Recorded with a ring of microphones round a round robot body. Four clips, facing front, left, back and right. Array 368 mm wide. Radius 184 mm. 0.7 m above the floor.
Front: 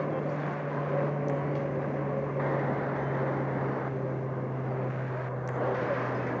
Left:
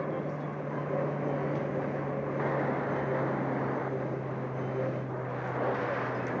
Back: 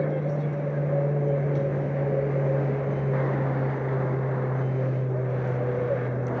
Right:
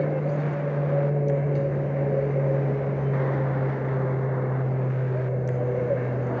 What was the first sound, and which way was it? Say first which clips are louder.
An aircraft: right 8 dB, back 4 dB; 130° right.